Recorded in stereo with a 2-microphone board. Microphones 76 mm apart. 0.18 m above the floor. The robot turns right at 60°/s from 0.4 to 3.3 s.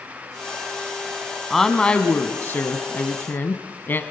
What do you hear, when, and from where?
1.5 s a woman speaking: 5° left, 1.3 m; by 4.0 s 115° left, 1.3 m